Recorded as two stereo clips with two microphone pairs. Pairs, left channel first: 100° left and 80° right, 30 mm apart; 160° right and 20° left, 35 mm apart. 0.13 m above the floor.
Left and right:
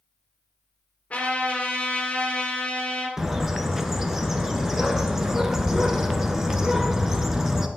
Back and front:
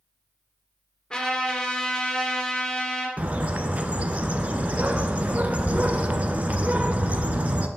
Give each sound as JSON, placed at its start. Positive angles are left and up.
{"t": 1.1, "sound": "a trumpet", "azimuth_deg": 135, "distance_m": 2.5}
{"t": 3.2, "sound": "a bird", "azimuth_deg": -5, "distance_m": 0.9}